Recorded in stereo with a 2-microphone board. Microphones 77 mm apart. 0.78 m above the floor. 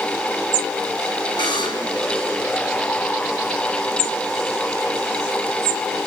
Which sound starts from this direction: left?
A buzzer, at 1.4 s.